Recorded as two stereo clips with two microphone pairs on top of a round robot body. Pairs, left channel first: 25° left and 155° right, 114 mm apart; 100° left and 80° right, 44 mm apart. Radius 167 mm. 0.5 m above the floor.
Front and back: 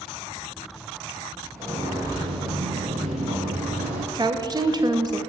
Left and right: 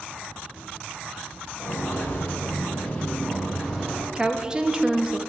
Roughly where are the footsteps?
Behind left.